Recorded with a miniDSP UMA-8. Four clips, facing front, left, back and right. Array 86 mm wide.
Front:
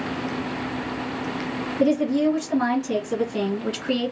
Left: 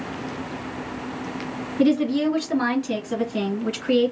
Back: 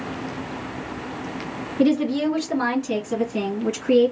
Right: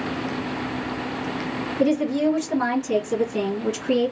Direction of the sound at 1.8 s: 135° left.